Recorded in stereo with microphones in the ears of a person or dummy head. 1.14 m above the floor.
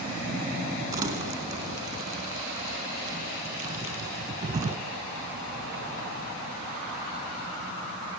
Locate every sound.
0.9 s crumpling: 25° right (ahead or behind), 2.5 m